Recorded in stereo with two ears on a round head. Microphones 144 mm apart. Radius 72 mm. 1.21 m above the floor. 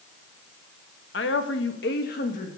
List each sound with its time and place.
1.1 s a woman speaking: 75° left (ahead or behind), 1.5 m; by 2.6 s 45° left (ahead or behind), 2 m